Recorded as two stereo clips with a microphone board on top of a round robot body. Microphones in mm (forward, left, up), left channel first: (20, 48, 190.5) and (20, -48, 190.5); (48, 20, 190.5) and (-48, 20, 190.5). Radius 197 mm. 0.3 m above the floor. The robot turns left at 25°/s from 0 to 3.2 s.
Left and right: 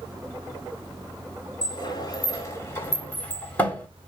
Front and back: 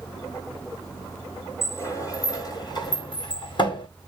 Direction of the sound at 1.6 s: 55° left.